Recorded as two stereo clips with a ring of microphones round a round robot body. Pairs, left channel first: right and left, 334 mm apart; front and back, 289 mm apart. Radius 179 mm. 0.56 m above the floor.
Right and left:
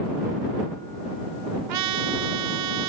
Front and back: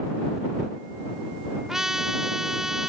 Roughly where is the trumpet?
Left.